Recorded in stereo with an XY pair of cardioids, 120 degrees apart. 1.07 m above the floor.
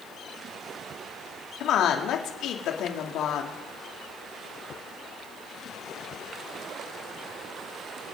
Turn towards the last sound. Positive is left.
turn(degrees=70)